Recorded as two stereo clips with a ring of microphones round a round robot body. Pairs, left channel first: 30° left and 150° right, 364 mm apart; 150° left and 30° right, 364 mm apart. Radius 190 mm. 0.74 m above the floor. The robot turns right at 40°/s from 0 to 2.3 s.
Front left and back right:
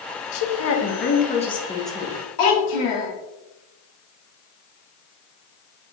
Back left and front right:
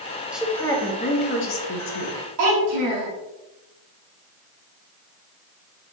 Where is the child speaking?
Straight ahead, 1.3 m.